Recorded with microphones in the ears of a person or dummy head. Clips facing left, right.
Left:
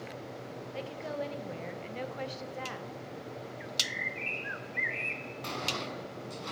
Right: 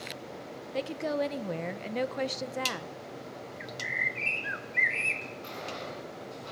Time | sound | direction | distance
0.7 | a woman speaking | 65° right (ahead or behind) | 1.2 m
3.6 | a bird | 60° right (ahead or behind) | 1.5 m
5.4 | a sliding door | 80° left | 5 m